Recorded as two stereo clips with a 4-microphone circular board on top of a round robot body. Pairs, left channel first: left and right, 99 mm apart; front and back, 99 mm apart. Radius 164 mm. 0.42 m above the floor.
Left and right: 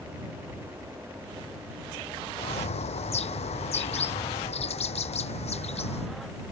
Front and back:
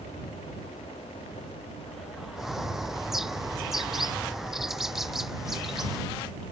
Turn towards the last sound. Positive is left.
turn(degrees=95)